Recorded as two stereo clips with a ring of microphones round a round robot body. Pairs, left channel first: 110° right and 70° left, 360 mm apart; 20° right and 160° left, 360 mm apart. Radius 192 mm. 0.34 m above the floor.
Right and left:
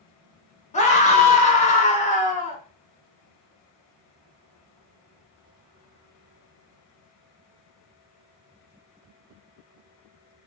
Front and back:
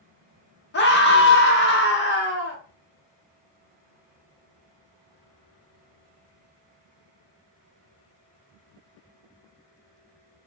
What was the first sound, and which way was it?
A scream, 55° right.